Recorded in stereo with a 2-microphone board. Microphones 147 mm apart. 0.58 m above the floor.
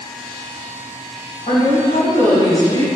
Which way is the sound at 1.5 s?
70° left (ahead or behind).